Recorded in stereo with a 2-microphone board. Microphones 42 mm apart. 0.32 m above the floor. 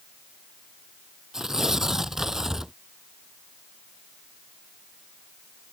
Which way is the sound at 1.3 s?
15° right (ahead or behind).